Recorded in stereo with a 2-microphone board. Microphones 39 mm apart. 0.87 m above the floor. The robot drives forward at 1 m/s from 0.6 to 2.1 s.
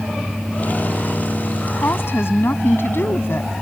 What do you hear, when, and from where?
1.7 s a woman speaking: 75° left (ahead or behind)